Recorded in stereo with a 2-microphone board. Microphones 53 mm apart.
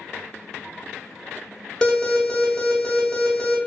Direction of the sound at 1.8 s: 15° left (ahead or behind).